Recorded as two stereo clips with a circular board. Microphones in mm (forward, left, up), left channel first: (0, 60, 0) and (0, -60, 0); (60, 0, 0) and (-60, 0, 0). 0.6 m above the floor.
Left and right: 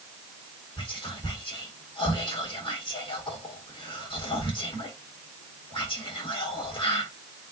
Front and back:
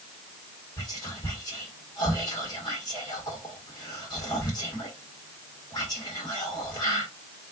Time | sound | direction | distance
0.8 | whispering | 50° left | 1.7 m